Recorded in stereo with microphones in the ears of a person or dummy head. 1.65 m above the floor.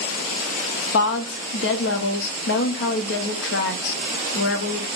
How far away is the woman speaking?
About 0.8 m.